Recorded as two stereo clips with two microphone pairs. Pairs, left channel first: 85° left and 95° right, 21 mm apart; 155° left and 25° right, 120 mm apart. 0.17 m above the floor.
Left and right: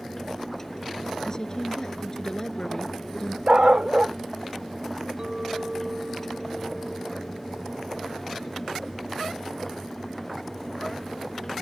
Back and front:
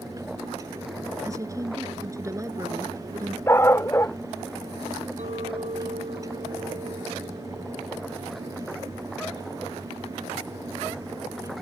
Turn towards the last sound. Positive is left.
turn(degrees=-40)